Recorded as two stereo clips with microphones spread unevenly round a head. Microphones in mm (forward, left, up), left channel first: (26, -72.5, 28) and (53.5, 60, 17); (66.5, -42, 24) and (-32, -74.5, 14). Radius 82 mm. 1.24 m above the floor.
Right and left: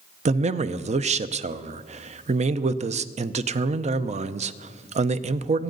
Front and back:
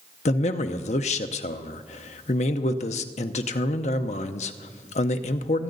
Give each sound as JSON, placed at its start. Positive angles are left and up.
{"t": 0.2, "sound": "a man speaking", "azimuth_deg": 45, "distance_m": 0.7}